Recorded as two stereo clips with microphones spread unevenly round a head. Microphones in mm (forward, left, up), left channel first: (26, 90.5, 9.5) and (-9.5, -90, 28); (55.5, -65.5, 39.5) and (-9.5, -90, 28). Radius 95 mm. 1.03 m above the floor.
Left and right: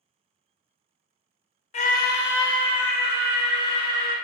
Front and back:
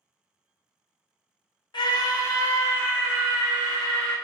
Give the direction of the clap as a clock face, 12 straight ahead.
No clap in this recording.